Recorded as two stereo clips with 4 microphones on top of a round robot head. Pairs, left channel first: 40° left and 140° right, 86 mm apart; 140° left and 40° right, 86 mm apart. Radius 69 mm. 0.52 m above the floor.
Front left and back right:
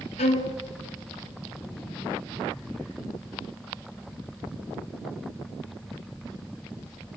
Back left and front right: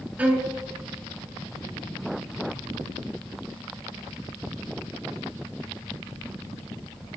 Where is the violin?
35° left, 1.0 m.